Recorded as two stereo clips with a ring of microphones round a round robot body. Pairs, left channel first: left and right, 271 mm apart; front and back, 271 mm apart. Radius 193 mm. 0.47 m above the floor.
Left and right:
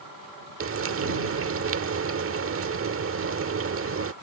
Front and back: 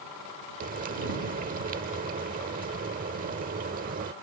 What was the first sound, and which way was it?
Frying, 120° right.